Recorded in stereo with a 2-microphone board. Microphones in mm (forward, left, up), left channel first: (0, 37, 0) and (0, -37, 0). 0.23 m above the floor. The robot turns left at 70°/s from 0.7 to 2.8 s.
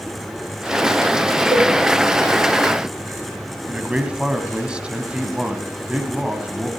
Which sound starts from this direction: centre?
A man speaking, at 3.7 s.